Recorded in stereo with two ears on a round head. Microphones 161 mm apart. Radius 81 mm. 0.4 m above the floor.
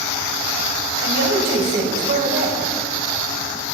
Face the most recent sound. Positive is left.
turn(degrees=-55)  # may be behind; listen again after turning